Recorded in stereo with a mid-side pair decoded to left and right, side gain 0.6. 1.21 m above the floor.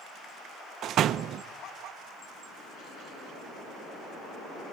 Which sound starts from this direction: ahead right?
A door slam, at 0.8 s.